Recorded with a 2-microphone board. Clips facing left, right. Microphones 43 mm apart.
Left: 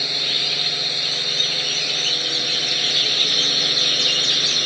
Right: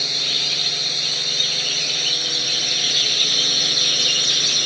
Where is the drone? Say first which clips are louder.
Even; 15° left (ahead or behind); by 4.7 s 10° left (ahead or behind).